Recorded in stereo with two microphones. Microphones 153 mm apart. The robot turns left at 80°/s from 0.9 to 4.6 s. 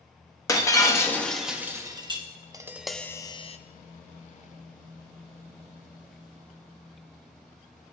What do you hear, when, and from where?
0.5 s breaking glass: 40° left, 0.9 m; by 2.2 s 65° right, 0.9 m
2.5 s tapping: 150° right, 0.5 m; by 3.6 s 125° left, 0.5 m